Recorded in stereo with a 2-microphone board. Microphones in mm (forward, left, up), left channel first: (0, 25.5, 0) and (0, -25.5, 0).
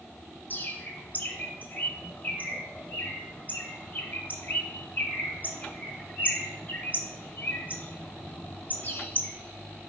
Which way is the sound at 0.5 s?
35° left (ahead or behind).